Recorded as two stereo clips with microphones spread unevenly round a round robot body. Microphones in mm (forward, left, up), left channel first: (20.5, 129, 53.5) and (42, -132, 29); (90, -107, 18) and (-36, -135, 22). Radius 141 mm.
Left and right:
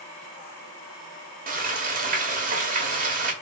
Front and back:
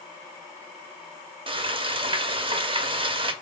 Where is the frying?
130° right, 0.6 m.